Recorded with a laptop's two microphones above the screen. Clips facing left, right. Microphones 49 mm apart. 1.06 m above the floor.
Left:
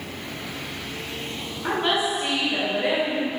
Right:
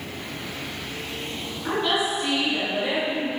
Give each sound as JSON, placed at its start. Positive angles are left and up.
{"t": 1.6, "sound": "a woman speaking", "side_deg": 30, "distance_m": 3.0}